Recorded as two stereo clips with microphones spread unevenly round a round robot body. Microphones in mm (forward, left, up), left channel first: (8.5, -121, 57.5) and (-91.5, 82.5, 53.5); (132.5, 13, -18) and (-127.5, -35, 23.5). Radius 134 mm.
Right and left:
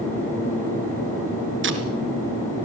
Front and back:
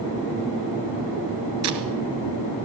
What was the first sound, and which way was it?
Tape being pulled, 150° left.